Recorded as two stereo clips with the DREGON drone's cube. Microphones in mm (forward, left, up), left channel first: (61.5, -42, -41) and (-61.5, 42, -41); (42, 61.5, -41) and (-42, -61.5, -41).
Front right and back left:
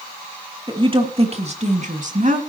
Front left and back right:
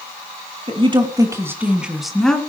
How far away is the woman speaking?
About 2 m.